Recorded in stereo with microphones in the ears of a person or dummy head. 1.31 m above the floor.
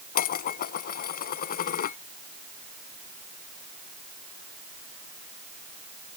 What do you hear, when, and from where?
0.1 s dishes clattering: 55° left (ahead or behind)